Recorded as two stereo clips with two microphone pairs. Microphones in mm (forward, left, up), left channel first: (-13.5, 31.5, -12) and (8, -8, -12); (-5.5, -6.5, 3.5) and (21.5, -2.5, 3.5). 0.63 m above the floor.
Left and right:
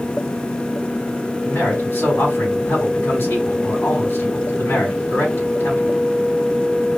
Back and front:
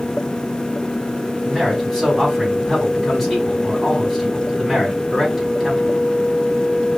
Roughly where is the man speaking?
Left.